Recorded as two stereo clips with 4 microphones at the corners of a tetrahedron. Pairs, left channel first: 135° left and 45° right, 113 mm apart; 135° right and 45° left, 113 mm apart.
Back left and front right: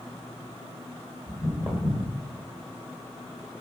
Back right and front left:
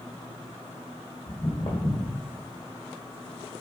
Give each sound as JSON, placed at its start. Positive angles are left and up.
{"t": 1.3, "sound": "footsteps", "azimuth_deg": -145, "distance_m": 1.4}